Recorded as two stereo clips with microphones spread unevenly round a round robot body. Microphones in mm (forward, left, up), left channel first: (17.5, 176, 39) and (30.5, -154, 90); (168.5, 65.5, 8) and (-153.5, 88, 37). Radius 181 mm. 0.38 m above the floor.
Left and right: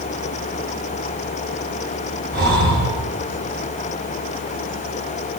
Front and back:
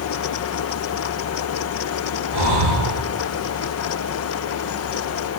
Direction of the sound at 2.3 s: Straight behind.